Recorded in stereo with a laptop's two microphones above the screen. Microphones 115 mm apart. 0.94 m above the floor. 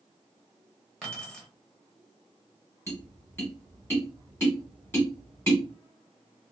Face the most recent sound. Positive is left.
turn(degrees=20)  # may be behind; listen again after turning